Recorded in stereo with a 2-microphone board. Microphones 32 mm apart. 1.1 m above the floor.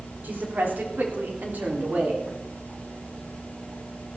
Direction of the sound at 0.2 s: 80° right.